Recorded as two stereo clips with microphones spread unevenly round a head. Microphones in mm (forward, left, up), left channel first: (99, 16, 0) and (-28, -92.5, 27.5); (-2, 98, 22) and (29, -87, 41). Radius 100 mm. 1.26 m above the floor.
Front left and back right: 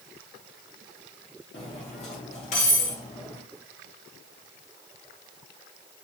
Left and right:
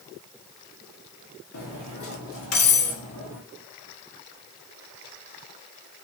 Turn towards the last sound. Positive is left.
turn(degrees=100)